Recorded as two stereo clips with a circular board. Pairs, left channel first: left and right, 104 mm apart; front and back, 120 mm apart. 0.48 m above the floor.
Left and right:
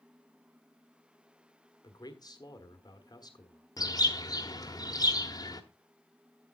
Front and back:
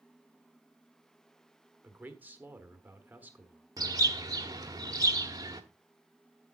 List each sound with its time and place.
1.8 s a man speaking: 110° left, 1.5 m
3.8 s a bird: 130° left, 1.1 m